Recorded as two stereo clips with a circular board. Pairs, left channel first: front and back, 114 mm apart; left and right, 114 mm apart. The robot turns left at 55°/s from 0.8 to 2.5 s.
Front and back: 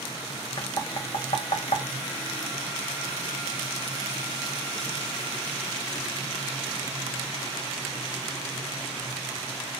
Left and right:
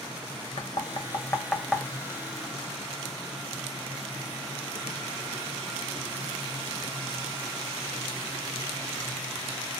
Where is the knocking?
50° left, 0.6 m; by 1.9 s 5° right, 0.6 m.